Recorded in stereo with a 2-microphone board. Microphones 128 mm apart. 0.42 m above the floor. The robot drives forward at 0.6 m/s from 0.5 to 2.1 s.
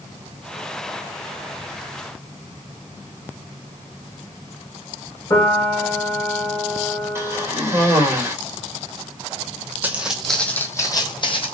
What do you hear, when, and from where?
5.3 s a piano: 25° left (ahead or behind), 2.5 m
7.2 s a cough: 20° right (ahead or behind), 1.6 m
9.8 s footsteps: 15° right (ahead or behind), 1.0 m; by 11.5 s 50° left (ahead or behind), 1.2 m